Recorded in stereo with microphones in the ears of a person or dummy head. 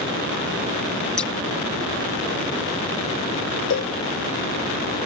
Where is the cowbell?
65° left (ahead or behind).